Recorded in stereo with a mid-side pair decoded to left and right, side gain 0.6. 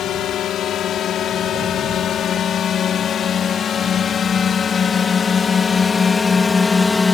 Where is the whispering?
I don't hear whispering.